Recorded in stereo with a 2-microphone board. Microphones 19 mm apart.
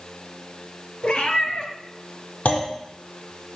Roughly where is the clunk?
Left.